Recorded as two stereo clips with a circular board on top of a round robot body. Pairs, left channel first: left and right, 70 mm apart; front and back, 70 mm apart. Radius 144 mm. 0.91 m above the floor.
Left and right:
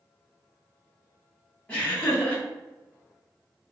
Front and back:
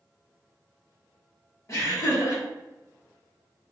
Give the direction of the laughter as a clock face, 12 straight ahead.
11 o'clock.